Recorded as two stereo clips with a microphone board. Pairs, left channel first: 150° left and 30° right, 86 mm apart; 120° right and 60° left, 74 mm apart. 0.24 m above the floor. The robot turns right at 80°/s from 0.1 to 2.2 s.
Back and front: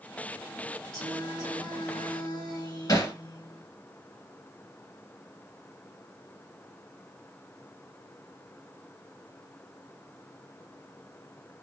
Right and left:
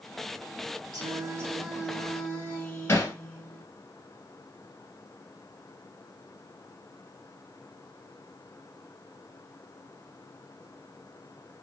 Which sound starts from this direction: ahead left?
Singing, at 0.9 s.